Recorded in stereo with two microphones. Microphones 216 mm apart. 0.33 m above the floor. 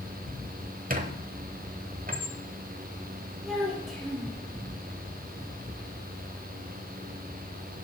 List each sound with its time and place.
0.9 s a squeak: 40° right (ahead or behind), 1.0 m
3.5 s a child speaking: centre (ahead or behind), 4 m